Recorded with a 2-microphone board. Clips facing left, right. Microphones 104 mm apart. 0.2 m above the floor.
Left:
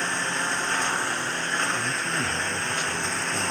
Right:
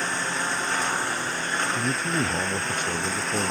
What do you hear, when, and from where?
0.0 s a lawn mower: 5° right (ahead or behind)
1.8 s a man speaking: 45° right (ahead or behind)